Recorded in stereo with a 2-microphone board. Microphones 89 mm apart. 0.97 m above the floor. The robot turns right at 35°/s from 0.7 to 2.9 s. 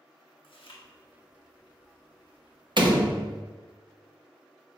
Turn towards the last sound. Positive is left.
turn(degrees=-55)  # may be behind; listen again after turning